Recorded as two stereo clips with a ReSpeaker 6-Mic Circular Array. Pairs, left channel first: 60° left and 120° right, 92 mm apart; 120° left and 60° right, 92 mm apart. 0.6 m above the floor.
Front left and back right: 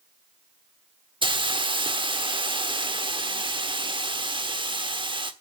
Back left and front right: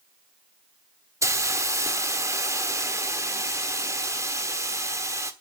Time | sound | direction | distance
1.2 | a hiss | 115° right | 1.2 m